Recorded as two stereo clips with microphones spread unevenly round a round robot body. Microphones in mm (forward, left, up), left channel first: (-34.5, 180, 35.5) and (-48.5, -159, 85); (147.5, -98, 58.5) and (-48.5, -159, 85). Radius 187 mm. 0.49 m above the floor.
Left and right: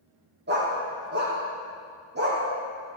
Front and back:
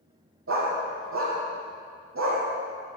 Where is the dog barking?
155° right, 8 m.